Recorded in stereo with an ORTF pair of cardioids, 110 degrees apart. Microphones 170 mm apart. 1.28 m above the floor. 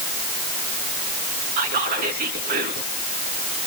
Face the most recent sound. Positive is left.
turn(degrees=-70)